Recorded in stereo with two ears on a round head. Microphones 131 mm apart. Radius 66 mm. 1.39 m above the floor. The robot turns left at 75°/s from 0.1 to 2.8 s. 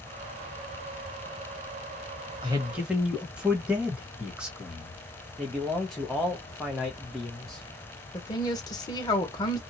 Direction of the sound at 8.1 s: 25° left (ahead or behind).